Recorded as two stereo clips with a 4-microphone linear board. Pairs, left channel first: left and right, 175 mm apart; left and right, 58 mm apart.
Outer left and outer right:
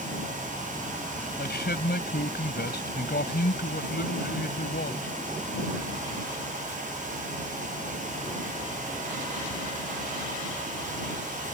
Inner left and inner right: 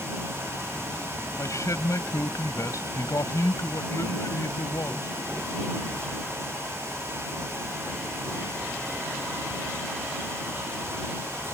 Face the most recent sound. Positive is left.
turn(degrees=70)  # may be behind; listen again after turning